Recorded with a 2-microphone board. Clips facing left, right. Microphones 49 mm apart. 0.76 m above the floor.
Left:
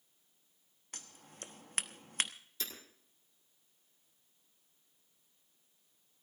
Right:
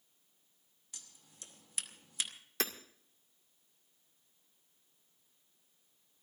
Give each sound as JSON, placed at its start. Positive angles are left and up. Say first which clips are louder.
{"t": 0.9, "sound": "scissors", "louder": "left 6 dB", "side_deg": 50, "distance_m": 0.9}
{"t": 2.6, "sound": "hammering", "louder": "right 8 dB", "side_deg": -75, "distance_m": 1.8}